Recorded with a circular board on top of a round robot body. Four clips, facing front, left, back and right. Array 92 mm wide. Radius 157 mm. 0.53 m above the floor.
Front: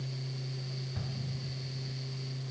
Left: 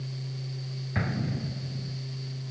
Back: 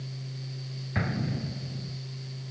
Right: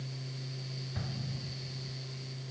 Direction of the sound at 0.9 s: 145° left.